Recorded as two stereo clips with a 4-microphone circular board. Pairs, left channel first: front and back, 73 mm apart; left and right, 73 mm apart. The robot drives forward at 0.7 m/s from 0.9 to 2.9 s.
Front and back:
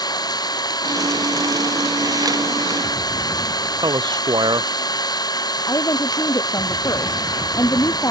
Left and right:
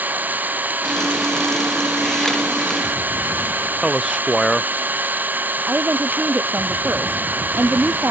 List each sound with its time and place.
0.0 s an engine running: 25° right
3.8 s a man speaking: 175° right
5.7 s a woman speaking: 30° right